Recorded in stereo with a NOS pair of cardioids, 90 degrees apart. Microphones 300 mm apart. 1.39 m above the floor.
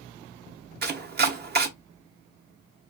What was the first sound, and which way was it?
Chopping, 35° right.